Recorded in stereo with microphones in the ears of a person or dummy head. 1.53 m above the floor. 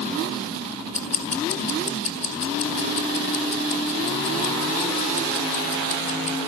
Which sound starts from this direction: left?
Ticking, at 0.9 s.